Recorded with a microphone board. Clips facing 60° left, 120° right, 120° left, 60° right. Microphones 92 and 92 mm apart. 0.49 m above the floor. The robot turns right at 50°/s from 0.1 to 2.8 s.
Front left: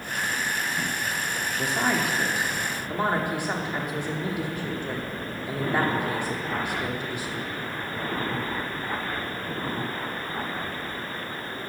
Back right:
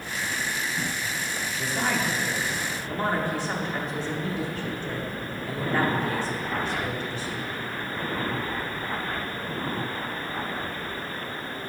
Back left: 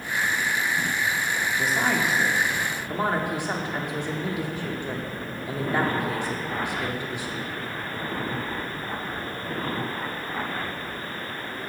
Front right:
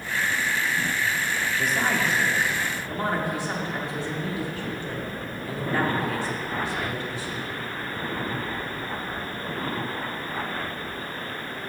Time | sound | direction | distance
1.6 | a woman speaking | 40° left | 0.9 m